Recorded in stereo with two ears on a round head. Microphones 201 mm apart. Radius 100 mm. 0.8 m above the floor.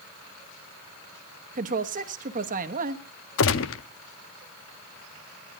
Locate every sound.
1.6 s a woman speaking: 35° right (ahead or behind), 1.0 m
3.4 s a gunshot: 60° left (ahead or behind), 0.7 m